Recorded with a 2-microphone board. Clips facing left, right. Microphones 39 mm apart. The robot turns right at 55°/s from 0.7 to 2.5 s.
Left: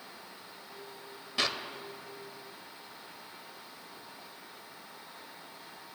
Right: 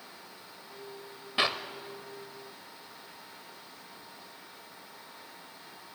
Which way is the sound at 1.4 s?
25° right (ahead or behind).